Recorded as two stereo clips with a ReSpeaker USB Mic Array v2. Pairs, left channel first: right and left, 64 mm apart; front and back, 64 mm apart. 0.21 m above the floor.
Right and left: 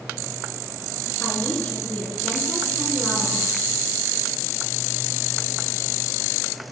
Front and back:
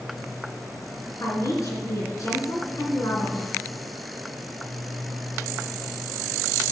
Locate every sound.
1.2 s a woman speaking: 25° right, 3 m